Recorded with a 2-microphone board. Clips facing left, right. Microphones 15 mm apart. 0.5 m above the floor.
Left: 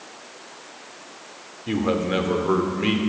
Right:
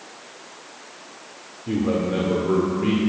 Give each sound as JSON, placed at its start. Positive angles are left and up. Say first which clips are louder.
{"t": 1.7, "sound": "a man speaking", "louder": "even", "side_deg": 40, "distance_m": 1.5}